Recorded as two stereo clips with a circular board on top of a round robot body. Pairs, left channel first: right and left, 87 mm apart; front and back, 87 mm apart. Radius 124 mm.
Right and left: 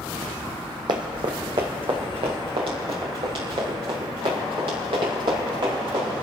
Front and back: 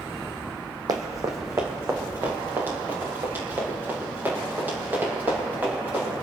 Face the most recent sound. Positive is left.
turn(degrees=110)